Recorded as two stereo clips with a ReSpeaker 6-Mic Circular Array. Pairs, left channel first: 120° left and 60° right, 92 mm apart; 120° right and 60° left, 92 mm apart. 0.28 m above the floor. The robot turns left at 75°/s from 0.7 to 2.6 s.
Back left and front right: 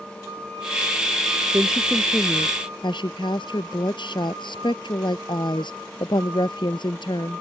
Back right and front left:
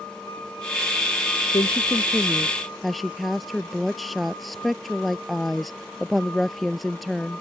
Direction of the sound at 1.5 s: 130° right.